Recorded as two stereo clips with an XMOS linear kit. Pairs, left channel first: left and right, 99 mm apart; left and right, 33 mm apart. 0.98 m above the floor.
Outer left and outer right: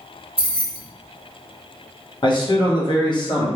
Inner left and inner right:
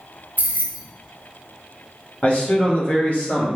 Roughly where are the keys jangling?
Right.